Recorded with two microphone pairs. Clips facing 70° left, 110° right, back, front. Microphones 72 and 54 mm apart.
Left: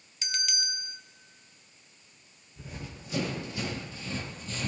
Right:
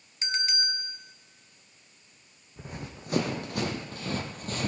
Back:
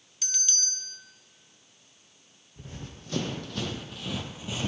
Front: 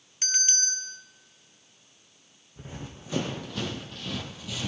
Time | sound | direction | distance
0.2 | a bell | 50° right | 0.8 m
2.6 | running footsteps | 70° right | 3 m